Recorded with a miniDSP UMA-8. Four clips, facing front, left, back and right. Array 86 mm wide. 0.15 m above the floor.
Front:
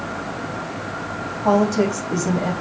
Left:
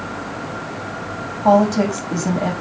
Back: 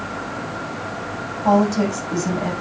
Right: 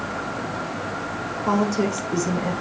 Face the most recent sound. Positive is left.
turn(degrees=85)